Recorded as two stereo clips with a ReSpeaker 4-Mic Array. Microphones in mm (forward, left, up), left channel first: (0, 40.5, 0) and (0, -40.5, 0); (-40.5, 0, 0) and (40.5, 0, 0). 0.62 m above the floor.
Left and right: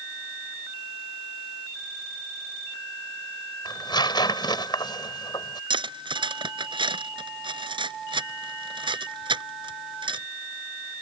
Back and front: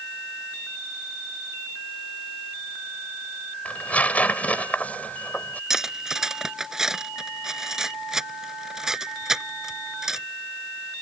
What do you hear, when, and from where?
3.6 s tearing paper: 110° left
5.7 s cutlery clinking: 85° right